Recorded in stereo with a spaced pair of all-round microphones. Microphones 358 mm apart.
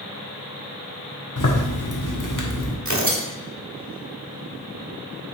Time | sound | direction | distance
1.4 | a zipper | 60° left (ahead or behind) | 1.4 m
2.9 | tearing paper | 50° right (ahead or behind) | 1.8 m